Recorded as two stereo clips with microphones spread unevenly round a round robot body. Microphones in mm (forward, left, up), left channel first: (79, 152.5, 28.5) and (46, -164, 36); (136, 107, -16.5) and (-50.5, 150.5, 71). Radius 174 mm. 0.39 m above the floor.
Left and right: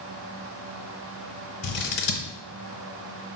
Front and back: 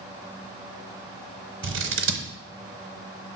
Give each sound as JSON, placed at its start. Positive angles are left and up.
{"t": 1.6, "sound": "scissors", "azimuth_deg": 140, "distance_m": 0.7}